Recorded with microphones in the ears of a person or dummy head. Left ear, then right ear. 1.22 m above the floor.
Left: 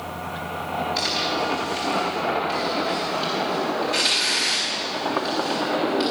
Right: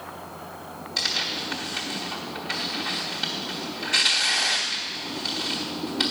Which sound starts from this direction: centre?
Tearing paper, at 1.0 s.